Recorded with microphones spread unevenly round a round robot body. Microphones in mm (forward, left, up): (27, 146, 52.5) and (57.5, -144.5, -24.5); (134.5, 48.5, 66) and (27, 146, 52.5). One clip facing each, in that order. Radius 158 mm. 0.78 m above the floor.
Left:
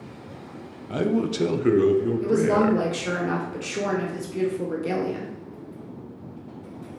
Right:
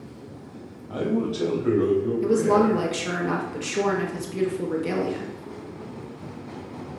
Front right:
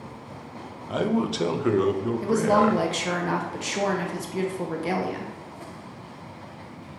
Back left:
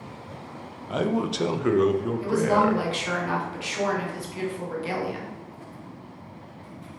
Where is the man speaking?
50° left, 0.6 m.